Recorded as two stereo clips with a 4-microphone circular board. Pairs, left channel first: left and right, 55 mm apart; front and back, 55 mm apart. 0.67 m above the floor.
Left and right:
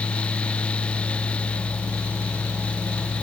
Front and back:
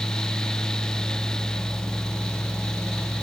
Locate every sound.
Only background noise.